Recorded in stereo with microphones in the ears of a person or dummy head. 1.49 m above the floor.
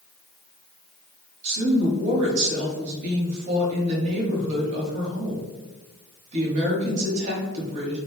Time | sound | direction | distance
1.4 | a woman speaking | 40° right (ahead or behind) | 1.2 m